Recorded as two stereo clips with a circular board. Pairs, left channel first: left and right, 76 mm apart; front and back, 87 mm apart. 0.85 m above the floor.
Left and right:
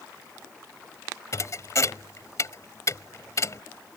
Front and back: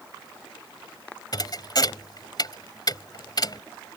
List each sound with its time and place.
1.3 s a thud: 40° left